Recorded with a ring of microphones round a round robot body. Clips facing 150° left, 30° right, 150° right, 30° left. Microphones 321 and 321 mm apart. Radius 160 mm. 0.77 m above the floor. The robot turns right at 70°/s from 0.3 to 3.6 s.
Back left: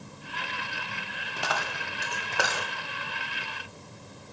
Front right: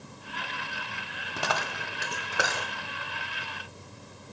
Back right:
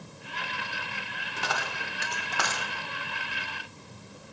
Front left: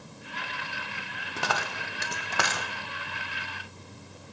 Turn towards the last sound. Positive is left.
turn(degrees=140)